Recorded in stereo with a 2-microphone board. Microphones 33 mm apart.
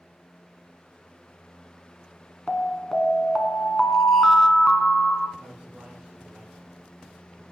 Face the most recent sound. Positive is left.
turn(degrees=-40)  # may be behind; listen again after turning